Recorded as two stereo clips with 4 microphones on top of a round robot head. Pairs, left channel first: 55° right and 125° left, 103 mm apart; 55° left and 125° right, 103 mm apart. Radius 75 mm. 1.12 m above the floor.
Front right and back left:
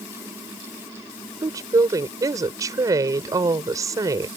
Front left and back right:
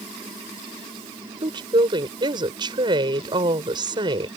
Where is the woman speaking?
175° right.